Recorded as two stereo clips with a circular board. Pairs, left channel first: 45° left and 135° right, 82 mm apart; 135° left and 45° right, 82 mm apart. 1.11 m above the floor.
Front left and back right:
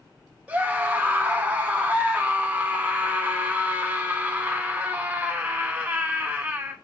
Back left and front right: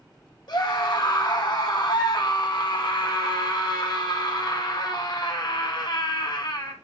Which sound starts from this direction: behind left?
A scream, at 0.5 s.